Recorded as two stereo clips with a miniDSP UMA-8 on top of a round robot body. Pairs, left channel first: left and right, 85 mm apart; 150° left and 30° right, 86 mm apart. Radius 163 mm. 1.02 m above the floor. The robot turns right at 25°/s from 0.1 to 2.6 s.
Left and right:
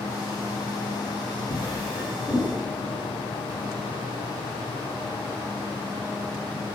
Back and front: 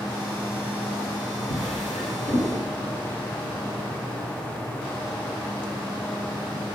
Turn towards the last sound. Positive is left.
turn(degrees=-175)